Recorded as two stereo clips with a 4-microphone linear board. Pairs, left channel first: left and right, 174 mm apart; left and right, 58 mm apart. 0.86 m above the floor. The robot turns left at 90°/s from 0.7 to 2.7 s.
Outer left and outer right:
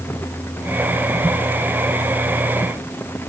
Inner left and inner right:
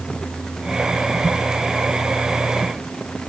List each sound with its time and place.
Only background noise.